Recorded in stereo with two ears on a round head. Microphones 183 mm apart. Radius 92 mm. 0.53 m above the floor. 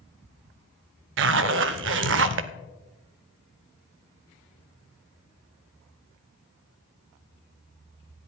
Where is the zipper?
55° right (ahead or behind), 0.6 m.